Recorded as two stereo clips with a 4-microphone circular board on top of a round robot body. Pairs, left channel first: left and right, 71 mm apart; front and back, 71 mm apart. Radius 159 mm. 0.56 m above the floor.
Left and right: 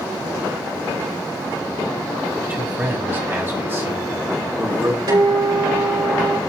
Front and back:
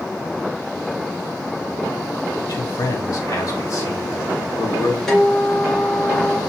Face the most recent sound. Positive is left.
turn(degrees=-85)